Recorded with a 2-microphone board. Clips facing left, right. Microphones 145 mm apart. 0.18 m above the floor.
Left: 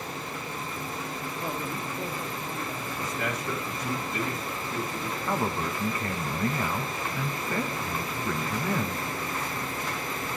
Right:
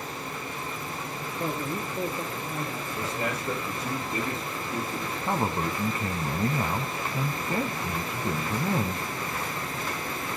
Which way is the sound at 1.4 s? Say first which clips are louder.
Right 4 dB; 65° right (ahead or behind).